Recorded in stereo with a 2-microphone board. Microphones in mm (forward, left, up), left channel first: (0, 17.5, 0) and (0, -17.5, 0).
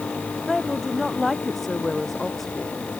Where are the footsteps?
I don't hear footsteps.